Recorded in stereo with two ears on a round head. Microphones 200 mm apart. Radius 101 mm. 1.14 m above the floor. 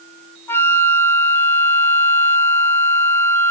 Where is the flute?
10° left (ahead or behind), 1.0 m.